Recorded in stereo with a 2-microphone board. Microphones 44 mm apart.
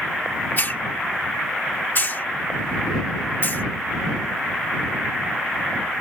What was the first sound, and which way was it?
A hiss, 45° left (ahead or behind).